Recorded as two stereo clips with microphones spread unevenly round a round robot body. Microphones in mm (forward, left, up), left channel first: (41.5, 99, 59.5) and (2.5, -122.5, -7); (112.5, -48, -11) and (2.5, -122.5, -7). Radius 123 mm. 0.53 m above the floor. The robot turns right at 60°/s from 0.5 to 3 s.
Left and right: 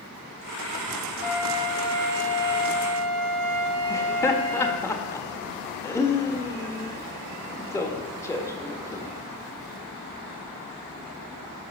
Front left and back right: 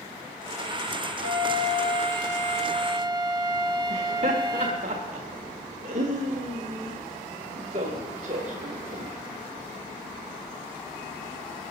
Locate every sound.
1.2 s a flute: 165° left, 1.3 m; by 4.8 s 90° right, 1.3 m
3.9 s laughter: 170° left, 1.5 m